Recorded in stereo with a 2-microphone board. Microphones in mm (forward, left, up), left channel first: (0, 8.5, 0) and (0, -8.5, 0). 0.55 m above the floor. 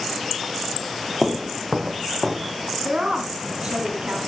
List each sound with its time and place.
1.2 s footsteps: 5° right (ahead or behind), 0.6 m; by 2.7 s 40° right (ahead or behind), 1.8 m
2.8 s a woman speaking: 75° right (ahead or behind), 3.5 m